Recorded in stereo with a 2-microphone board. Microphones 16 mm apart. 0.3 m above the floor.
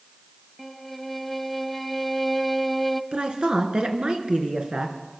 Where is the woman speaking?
75° right (ahead or behind), 3.5 m.